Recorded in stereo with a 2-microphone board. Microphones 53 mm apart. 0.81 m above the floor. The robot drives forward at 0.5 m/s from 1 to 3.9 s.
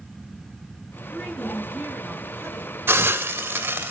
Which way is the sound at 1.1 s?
15° left (ahead or behind).